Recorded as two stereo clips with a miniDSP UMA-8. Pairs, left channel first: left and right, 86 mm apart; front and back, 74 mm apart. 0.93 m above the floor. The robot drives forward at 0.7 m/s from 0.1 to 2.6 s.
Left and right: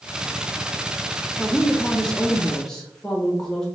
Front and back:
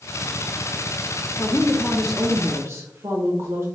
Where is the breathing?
No breathing in this recording.